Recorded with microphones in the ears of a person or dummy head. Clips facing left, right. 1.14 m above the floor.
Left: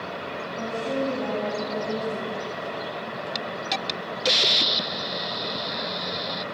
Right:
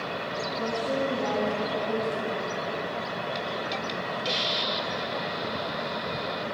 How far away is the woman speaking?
About 9 m.